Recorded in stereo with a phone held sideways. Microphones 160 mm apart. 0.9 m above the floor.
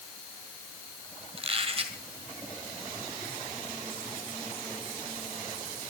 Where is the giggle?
No giggle in this recording.